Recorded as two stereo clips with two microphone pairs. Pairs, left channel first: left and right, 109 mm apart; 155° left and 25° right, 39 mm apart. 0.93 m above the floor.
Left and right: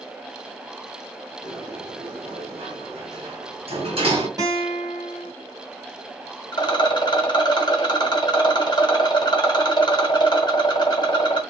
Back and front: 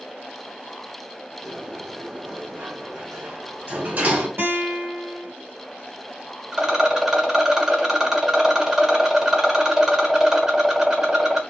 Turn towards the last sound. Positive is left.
turn(degrees=50)